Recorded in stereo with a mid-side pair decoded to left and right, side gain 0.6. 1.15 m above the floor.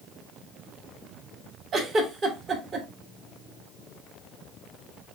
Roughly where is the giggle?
Ahead right.